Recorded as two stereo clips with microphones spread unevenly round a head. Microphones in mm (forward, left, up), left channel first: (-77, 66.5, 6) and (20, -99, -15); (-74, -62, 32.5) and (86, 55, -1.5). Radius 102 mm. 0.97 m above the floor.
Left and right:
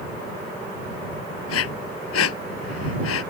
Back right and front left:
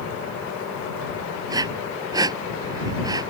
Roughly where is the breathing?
Left.